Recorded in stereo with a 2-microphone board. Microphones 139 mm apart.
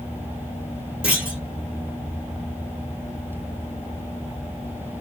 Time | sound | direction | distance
1.0 | a clunk | 5° right (ahead or behind) | 1.9 m